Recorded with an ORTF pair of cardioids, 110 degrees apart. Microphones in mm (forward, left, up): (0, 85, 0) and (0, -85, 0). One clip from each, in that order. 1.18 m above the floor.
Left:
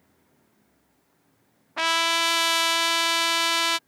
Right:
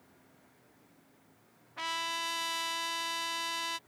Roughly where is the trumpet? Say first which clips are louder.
Left 13 dB; ahead left.